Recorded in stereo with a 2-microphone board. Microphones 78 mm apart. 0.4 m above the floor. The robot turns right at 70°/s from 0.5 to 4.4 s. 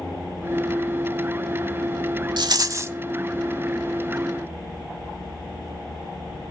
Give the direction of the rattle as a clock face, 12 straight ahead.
2 o'clock.